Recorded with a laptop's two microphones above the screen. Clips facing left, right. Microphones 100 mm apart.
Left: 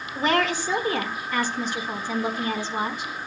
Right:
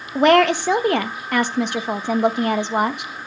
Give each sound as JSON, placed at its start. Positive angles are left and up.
{"t": 0.1, "sound": "a woman speaking", "side_deg": -70, "distance_m": 1.0}